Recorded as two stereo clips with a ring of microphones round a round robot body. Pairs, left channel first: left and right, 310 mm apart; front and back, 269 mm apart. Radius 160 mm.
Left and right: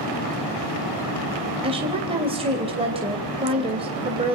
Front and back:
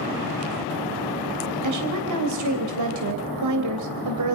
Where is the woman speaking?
165° right, 3 m.